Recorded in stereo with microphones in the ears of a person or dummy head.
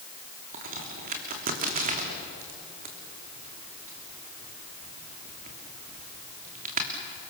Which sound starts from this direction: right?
A crack, at 0.5 s.